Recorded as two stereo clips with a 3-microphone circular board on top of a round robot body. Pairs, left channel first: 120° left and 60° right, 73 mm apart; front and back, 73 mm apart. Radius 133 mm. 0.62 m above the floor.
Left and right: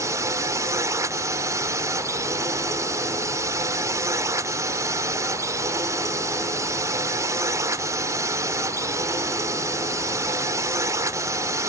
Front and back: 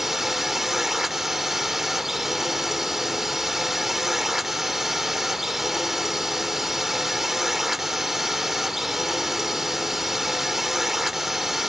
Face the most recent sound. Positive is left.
turn(degrees=-95)